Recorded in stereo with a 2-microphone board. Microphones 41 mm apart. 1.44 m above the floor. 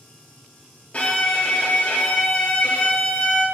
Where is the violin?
35° left (ahead or behind), 0.5 m.